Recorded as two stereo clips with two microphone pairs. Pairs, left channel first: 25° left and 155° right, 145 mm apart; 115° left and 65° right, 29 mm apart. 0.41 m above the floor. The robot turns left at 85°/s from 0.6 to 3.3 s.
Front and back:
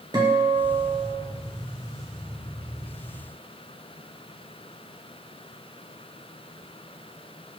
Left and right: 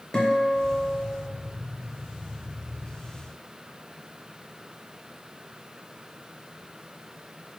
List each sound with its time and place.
0.1 s a guitar: 165° left, 0.9 m; by 1.3 s 105° left, 0.9 m